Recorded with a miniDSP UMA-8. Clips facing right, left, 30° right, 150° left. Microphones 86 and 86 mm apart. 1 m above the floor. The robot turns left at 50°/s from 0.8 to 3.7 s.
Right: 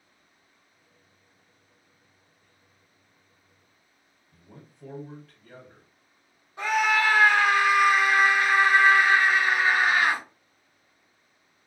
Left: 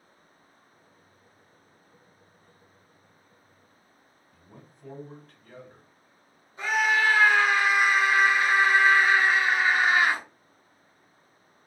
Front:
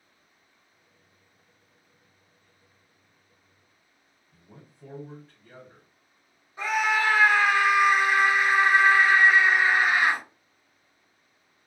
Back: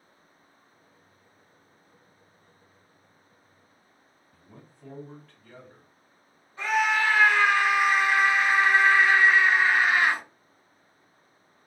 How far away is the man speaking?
About 1.7 m.